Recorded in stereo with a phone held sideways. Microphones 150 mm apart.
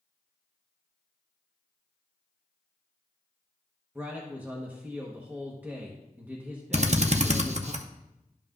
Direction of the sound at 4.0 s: 10° right (ahead or behind).